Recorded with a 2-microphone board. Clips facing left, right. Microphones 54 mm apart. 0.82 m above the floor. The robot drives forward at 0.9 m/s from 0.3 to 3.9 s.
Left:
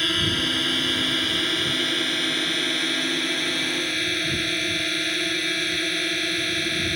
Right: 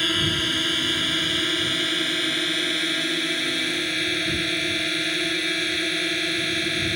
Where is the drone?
5° right (ahead or behind).